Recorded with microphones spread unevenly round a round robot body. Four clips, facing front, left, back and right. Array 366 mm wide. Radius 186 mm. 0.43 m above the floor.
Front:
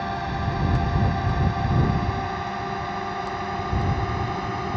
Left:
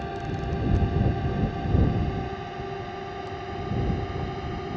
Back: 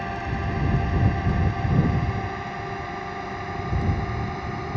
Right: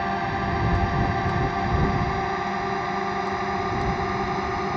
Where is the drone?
80° right; by 4.8 s 75° right.